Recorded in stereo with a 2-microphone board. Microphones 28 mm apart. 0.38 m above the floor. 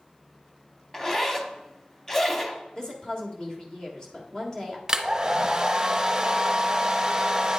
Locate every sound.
0.9 s a zipper: 20° left (ahead or behind), 0.7 m
2.8 s a woman speaking: 25° left (ahead or behind), 1.4 m
4.9 s a hair dryer: 20° right (ahead or behind), 0.6 m